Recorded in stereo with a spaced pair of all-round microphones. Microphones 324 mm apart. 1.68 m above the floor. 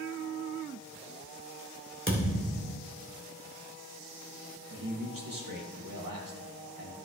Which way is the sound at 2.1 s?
40° right (ahead or behind).